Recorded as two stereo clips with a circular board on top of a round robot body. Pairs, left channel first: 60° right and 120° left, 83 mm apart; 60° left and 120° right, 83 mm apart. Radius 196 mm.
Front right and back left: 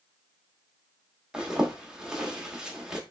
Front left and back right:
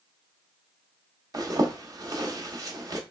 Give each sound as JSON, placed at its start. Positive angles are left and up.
{"t": 1.3, "sound": "a zipper", "azimuth_deg": -160, "distance_m": 1.0}